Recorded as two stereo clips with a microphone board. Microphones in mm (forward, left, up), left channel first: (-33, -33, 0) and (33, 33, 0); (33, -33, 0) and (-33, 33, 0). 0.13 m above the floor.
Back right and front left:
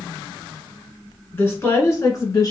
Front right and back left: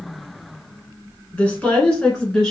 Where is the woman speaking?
100° right, 1.5 m; by 2.5 s 125° right, 1.9 m.